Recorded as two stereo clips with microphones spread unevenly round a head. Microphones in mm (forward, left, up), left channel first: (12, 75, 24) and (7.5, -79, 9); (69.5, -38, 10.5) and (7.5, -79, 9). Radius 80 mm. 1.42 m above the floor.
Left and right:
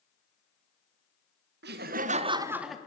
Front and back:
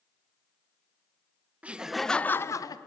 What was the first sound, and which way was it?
Laughter, 75° right.